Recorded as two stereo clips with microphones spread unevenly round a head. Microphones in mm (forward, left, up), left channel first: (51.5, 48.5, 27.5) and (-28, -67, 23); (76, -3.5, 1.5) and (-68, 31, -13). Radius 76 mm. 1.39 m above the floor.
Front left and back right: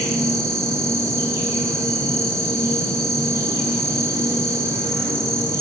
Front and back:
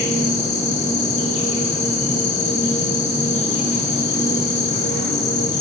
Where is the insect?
55° right, 2 m.